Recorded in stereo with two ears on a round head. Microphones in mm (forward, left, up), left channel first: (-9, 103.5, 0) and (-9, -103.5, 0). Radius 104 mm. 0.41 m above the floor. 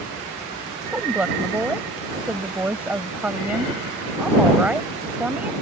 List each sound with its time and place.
0.9 s a woman speaking: 5° right (ahead or behind)